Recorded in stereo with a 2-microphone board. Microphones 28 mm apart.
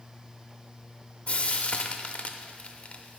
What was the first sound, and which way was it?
Frying, 45° left (ahead or behind).